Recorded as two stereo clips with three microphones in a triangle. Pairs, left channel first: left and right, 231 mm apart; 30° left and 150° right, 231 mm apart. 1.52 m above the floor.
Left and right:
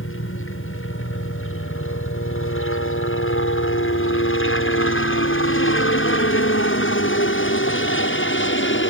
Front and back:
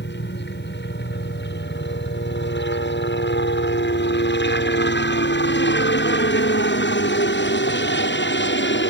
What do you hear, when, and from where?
0.0 s a helicopter: 70° left; by 8.9 s 65° left